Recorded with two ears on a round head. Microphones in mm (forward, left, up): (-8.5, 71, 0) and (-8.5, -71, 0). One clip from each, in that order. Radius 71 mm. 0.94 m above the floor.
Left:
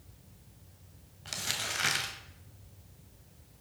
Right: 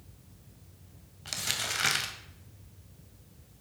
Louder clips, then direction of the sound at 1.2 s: Right 2 dB; 15° right (ahead or behind).